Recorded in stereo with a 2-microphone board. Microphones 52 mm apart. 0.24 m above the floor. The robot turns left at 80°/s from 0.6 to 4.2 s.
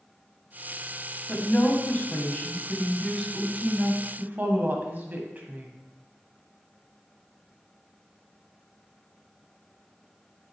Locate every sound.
1.3 s a woman speaking: 145° left, 1.4 m; by 5.7 s 85° right, 1.4 m